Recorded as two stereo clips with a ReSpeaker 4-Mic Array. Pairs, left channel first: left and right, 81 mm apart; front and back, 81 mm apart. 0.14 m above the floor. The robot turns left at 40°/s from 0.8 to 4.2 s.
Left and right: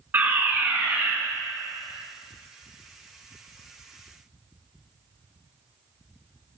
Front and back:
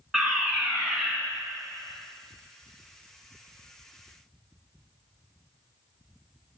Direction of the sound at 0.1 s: 100° right.